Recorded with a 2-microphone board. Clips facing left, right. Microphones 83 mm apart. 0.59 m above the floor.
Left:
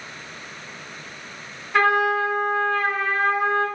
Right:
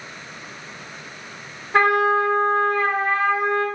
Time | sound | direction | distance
1.7 | a trumpet | 30° right (ahead or behind) | 0.9 m